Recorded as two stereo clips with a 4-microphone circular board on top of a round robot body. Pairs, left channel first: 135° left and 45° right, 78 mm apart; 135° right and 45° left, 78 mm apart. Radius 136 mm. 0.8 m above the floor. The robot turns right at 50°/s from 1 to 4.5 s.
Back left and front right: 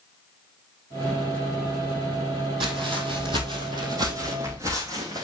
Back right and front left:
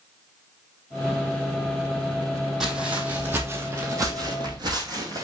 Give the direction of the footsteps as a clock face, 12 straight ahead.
1 o'clock.